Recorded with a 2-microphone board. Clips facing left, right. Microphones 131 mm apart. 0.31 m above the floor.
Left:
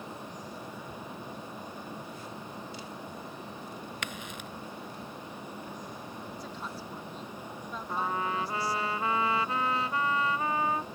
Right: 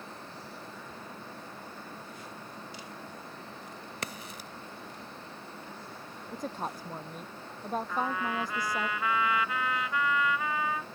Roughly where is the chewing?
No chewing in this recording.